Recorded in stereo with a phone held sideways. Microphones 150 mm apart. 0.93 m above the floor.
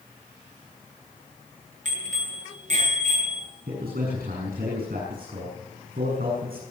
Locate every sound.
1.9 s a bicycle bell: 55° right (ahead or behind), 9 m; by 3.5 s 50° right (ahead or behind), 9 m
3.7 s a man speaking: 85° right, 7.5 m